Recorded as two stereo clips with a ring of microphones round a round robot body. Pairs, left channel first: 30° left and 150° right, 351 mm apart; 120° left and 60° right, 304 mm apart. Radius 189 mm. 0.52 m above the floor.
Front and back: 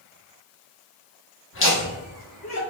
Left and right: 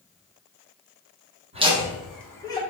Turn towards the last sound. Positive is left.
turn(degrees=50)